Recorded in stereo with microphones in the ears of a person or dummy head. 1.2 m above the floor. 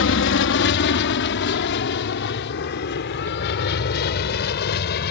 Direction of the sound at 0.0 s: 60° left (ahead or behind).